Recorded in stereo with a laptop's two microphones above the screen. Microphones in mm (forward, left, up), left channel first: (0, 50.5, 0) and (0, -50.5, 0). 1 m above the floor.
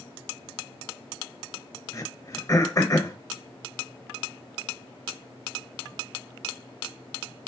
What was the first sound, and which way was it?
Throat clearing, 35° left (ahead or behind).